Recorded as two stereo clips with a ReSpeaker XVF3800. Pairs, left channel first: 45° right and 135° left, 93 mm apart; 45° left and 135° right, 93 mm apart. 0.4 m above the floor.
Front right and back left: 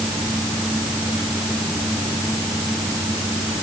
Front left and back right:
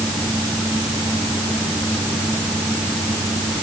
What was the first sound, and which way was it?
Only background noise.